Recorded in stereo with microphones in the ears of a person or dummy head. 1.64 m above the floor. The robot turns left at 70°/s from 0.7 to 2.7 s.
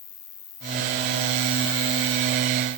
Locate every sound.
0.0 s an insect: 155° left; by 2.8 s 15° left